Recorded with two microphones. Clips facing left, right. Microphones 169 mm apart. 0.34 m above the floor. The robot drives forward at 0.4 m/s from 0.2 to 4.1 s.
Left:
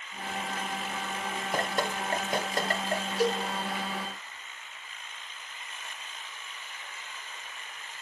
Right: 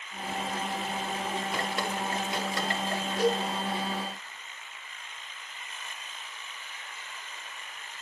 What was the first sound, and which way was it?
Dripping, 45° left (ahead or behind).